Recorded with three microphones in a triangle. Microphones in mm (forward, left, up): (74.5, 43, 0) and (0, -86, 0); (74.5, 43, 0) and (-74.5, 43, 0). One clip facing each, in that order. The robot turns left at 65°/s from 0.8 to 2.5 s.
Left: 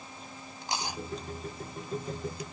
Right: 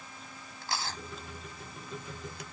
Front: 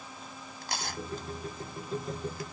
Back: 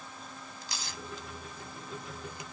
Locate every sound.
0.6 s tearing paper: 10° right; by 2.4 s 115° right